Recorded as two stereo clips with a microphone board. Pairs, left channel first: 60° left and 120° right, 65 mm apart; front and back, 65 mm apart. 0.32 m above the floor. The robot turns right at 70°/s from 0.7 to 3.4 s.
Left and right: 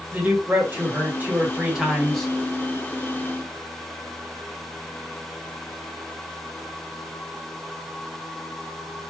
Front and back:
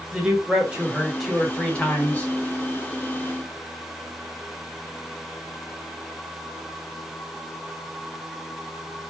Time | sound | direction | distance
0.1 | a man speaking | 125° right | 1.5 m